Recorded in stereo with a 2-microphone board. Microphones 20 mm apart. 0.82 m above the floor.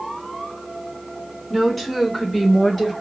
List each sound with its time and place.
1.5 s a woman speaking: 5° left (ahead or behind), 2.5 m; by 2.9 s 10° left (ahead or behind), 4 m